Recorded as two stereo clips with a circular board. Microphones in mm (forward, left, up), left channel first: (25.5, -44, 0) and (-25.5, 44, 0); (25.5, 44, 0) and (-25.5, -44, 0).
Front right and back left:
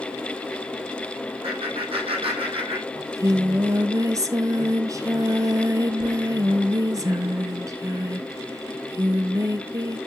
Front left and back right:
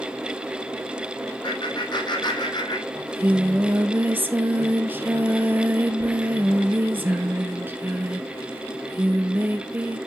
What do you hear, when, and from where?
1.4 s laughter: 100° left, 4 m; by 2.9 s 105° left, 3.5 m
3.0 s singing: 170° left, 1.2 m